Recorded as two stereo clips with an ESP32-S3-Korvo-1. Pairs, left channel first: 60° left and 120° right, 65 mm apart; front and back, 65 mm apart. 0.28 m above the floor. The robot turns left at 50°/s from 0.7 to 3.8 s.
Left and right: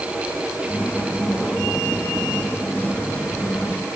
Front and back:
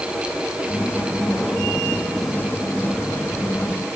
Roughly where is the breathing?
No breathing in this recording.